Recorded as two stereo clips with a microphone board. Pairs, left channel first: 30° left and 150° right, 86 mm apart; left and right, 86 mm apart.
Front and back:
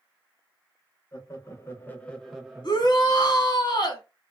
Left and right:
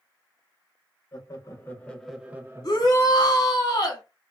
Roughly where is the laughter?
Left.